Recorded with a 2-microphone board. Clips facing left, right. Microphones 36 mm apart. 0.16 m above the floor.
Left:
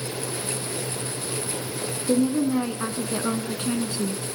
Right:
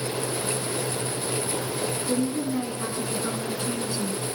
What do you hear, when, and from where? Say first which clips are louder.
2.1 s a woman speaking: left 7 dB; 40° left (ahead or behind), 1.4 m